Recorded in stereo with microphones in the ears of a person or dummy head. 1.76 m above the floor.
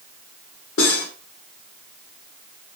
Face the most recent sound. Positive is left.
turn(degrees=70)  # may be behind; listen again after turning